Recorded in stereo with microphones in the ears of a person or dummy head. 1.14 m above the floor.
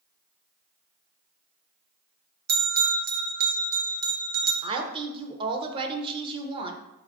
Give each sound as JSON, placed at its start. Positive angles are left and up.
{"t": 2.5, "sound": "a bell", "side_deg": -45, "distance_m": 0.6}
{"t": 4.6, "sound": "a woman speaking", "side_deg": -25, "distance_m": 0.6}